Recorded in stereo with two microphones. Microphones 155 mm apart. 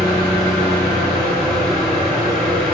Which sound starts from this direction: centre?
An engine running, at 0.0 s.